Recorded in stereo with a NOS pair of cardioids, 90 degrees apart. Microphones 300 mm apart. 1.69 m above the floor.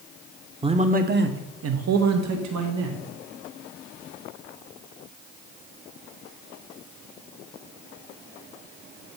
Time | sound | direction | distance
0.6 | a man speaking | 20° right | 1.0 m